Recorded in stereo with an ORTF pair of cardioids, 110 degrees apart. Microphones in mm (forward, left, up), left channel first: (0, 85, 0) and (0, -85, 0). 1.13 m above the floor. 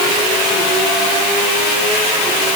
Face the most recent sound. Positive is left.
No sound to turn to.